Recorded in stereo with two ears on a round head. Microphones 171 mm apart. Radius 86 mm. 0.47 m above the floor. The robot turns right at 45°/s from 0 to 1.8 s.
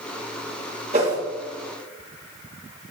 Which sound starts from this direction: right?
A whoosh, at 0.9 s.